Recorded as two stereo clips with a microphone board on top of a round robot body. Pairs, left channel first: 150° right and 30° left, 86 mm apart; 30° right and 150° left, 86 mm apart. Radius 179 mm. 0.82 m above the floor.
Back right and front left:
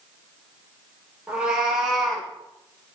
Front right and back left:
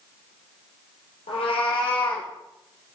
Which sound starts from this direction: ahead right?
A cat meowing, at 1.3 s.